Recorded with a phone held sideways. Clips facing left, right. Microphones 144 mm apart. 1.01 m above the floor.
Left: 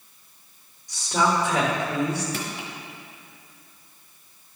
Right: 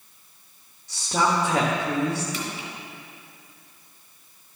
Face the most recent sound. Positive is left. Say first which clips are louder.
# even
turn(degrees=55)  # may be behind; listen again after turning